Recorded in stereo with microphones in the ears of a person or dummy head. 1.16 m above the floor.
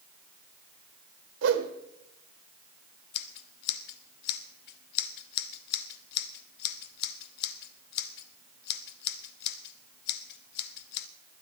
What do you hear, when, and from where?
1.4 s a whoosh: 85° right, 1.6 m
3.1 s scissors: 65° left (ahead or behind), 0.7 m